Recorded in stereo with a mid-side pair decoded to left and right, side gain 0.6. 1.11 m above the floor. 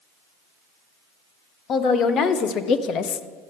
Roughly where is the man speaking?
Ahead left.